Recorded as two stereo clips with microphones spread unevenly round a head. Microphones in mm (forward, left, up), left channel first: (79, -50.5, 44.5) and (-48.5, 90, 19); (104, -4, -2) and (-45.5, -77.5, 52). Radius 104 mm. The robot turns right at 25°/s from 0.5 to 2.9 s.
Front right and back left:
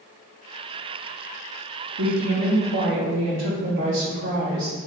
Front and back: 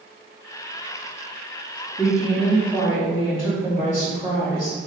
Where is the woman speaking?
95° left, 0.9 m; by 4.8 s 115° left, 0.9 m.